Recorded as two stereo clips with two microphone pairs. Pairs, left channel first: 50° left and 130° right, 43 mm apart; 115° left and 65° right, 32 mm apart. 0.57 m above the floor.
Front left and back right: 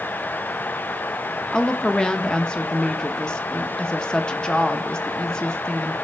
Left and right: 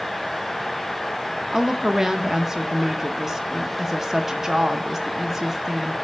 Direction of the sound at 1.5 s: Straight ahead.